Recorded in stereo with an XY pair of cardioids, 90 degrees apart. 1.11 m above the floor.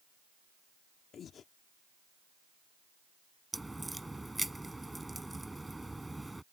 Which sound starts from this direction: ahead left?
Breathing, at 1.1 s.